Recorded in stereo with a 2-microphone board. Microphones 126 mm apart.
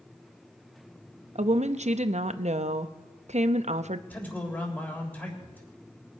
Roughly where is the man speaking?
Centre.